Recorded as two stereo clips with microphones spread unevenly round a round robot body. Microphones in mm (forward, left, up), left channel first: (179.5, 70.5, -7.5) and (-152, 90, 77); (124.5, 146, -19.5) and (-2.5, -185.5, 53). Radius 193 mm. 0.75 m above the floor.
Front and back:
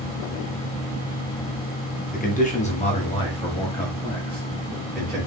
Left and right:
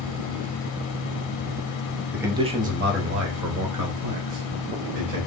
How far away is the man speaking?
About 0.9 m.